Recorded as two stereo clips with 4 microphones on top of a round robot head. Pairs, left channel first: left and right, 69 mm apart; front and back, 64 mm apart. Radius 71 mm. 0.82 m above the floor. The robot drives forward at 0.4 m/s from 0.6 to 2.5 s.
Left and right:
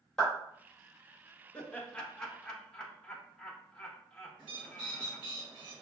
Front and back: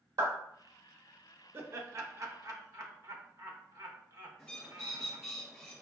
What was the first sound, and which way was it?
A clap, 175° left.